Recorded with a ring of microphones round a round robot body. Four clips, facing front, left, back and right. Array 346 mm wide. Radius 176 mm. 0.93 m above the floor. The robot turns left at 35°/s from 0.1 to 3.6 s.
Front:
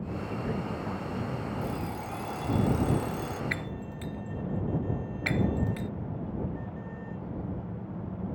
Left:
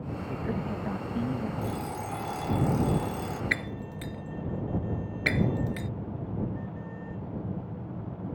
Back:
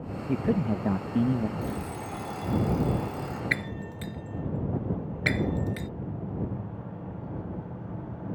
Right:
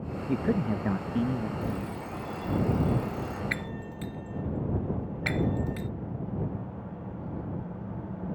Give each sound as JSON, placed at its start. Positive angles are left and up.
{"t": 0.3, "sound": "a man speaking", "azimuth_deg": -140}
{"t": 1.6, "sound": "an alarm clock", "azimuth_deg": 120}
{"t": 3.5, "sound": "breaking glass", "azimuth_deg": 135}